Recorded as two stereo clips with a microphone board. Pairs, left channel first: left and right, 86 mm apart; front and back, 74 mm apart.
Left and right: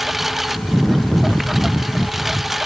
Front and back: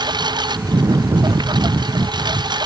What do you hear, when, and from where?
0.0 s a lawn mower: 175° right